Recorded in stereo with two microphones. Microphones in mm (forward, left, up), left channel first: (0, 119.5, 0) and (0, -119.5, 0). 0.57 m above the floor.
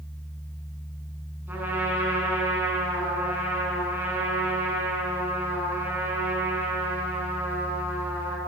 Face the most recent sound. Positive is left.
turn(degrees=-10)  # may be behind; listen again after turning